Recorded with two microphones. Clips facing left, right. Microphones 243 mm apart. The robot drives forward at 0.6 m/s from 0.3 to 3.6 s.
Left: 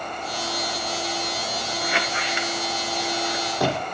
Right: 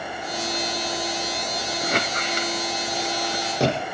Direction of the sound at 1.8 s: 45° right (ahead or behind).